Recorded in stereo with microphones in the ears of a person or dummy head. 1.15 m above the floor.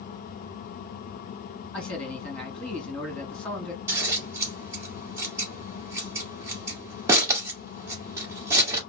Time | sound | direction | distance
1.7 | a man speaking | 10° left (ahead or behind) | 2.5 m
3.9 | scissors | 15° right (ahead or behind) | 1.4 m